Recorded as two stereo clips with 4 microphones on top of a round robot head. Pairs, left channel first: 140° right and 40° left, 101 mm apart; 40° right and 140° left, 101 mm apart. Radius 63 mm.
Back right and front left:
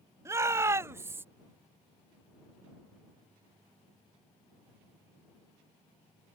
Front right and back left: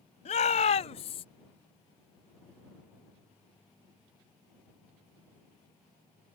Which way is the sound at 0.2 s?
25° right.